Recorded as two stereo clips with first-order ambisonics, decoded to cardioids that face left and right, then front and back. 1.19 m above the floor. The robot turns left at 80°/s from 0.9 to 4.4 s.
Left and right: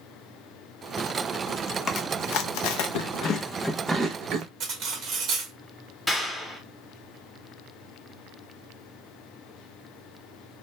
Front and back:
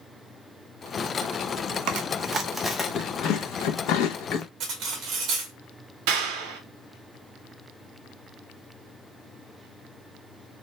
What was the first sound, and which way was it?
Chewing, 150° left.